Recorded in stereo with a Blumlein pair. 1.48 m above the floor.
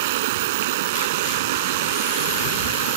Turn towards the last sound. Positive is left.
turn(degrees=-55)